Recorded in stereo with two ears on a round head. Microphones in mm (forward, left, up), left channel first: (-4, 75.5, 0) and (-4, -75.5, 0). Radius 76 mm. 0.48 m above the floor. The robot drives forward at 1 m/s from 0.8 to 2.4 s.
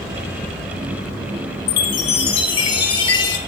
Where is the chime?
70° left (ahead or behind), 0.6 m; by 3.4 s 30° left (ahead or behind), 1.1 m.